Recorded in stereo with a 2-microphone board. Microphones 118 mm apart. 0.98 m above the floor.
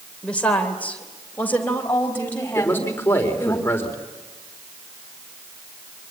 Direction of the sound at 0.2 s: 10° left (ahead or behind).